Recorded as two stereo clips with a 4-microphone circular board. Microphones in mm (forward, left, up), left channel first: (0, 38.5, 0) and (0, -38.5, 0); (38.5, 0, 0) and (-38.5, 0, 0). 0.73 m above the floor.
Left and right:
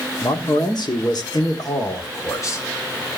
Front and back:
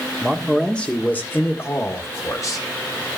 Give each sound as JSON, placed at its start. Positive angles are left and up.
{"t": 0.2, "sound": "a man speaking", "azimuth_deg": 90, "distance_m": 1.6}